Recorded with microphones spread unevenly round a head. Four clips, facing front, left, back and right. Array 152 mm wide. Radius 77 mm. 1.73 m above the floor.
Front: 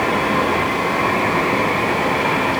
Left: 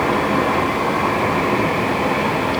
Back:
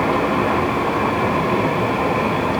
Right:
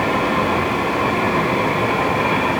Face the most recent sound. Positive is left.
No sound to turn to.